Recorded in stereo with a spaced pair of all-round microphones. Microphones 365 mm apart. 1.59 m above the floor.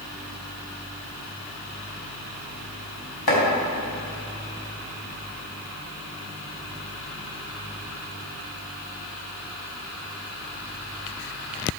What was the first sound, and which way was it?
Chopping, 85° left.